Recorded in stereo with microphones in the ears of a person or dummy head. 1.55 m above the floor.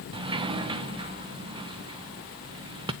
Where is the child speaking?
No child speaking in this recording.